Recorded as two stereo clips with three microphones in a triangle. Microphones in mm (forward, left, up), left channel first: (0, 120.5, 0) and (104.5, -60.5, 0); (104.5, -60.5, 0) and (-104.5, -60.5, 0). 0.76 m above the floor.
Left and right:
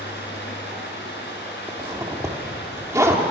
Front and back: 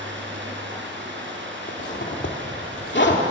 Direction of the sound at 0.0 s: 155° left.